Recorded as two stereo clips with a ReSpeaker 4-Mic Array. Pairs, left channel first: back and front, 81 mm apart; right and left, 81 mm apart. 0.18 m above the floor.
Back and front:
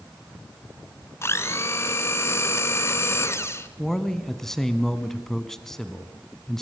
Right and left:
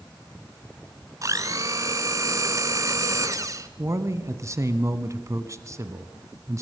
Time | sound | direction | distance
1.2 | a blender | 130° left | 1.0 m
3.8 | a man speaking | 100° left | 1.3 m